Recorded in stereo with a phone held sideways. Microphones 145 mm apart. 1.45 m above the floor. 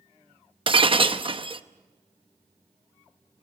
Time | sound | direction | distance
0.7 | breaking glass | 40° right (ahead or behind) | 0.9 m